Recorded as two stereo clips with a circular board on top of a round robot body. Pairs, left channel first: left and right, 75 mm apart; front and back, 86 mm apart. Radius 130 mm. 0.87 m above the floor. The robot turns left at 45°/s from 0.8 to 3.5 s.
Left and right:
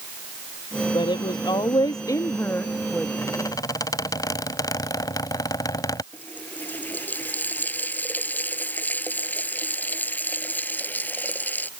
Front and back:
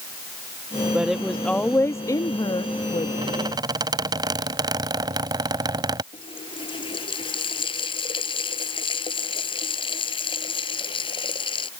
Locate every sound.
0.9 s a woman speaking: 100° left; by 3.1 s 5° left
3.2 s a squeak: 150° left; by 6.0 s 135° left
6.1 s a running tap: 25° left